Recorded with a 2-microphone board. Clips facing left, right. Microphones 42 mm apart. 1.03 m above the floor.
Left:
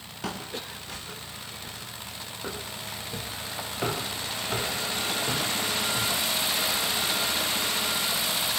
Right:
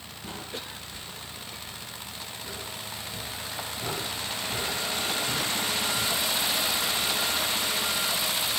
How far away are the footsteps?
About 10 m.